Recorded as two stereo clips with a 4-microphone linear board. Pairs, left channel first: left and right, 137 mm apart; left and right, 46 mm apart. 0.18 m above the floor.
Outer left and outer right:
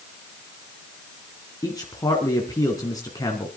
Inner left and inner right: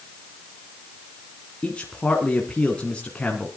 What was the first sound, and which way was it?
A man speaking, 25° left (ahead or behind).